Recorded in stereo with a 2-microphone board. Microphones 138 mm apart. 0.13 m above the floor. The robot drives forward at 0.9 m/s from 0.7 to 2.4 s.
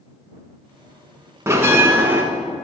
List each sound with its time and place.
1.5 s a bell: 20° right (ahead or behind), 0.7 m; by 2.2 s 15° right (ahead or behind), 0.9 m